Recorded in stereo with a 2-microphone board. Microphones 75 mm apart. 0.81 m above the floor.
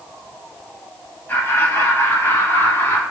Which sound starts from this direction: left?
Laughter, at 1.3 s.